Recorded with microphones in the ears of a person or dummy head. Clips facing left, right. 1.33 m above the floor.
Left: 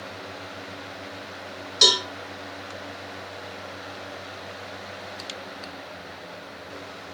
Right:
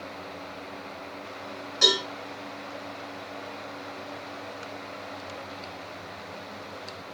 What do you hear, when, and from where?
1.8 s a cowbell: 55° left (ahead or behind), 2.5 m